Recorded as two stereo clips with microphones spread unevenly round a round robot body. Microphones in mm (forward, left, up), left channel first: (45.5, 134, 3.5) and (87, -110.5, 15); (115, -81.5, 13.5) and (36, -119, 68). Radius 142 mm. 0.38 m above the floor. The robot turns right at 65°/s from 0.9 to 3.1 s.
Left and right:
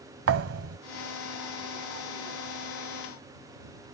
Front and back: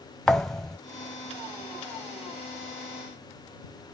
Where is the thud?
50° right.